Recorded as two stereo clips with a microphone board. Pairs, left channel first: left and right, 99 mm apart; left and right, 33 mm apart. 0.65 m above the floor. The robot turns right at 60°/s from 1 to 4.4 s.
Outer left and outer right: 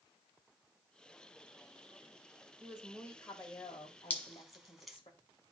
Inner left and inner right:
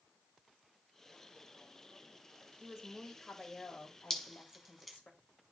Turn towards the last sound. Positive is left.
turn(degrees=0)  # may be behind; listen again after turning